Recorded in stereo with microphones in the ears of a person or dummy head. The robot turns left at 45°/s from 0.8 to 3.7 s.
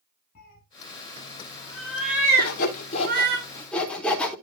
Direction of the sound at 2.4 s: 65° left (ahead or behind).